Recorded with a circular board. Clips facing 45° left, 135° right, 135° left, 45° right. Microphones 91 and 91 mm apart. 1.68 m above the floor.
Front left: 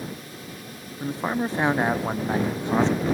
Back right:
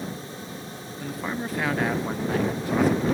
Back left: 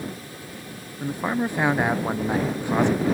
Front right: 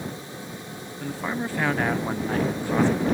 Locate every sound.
1.0 s a man speaking: 80° left